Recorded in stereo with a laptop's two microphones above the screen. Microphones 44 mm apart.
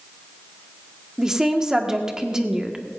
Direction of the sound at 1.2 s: 15° right (ahead or behind).